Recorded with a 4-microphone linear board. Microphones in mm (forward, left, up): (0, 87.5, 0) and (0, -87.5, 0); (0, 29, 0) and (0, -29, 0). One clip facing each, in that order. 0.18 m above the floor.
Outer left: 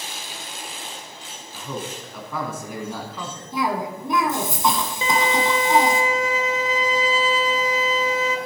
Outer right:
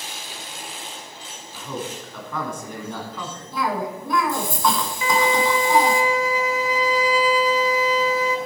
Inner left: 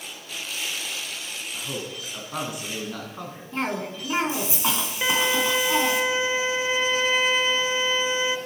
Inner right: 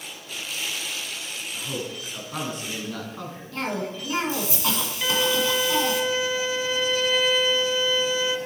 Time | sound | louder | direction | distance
1.5 | a man speaking | outer right 1 dB, inner right 2 dB | 5° left (ahead or behind) | 1.5 m
3.5 | a cough | outer left 1 dB, inner left 1 dB | 20° left (ahead or behind) | 1.7 m
5.0 | a violin | outer right 2 dB, inner left 1 dB | 25° left (ahead or behind) | 0.7 m